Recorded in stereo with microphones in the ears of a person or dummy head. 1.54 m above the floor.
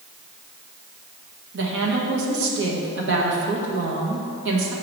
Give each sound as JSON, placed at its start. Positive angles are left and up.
{"t": 1.5, "sound": "a woman speaking", "side_deg": -65, "distance_m": 1.4}